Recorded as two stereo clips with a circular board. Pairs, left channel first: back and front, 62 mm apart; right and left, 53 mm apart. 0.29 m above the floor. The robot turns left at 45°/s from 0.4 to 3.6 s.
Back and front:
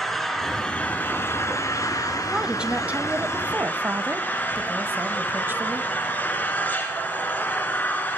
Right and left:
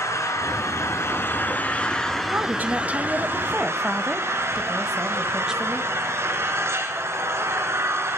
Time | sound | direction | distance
0.0 | an engine running | 95° right | 3 m
2.3 | a woman speaking | 80° left | 1.3 m